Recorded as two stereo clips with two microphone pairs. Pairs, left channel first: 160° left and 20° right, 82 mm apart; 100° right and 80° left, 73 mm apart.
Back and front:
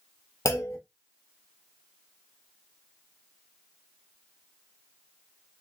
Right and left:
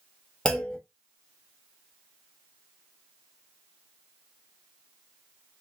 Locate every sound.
0.5 s a clunk: 175° right, 0.7 m